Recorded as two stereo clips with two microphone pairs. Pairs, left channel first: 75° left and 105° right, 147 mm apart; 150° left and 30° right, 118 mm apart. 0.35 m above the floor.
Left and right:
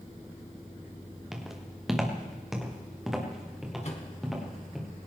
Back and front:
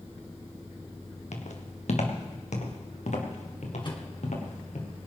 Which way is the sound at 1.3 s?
165° left.